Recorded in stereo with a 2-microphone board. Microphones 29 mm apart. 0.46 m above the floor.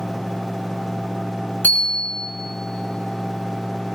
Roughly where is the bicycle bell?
Left.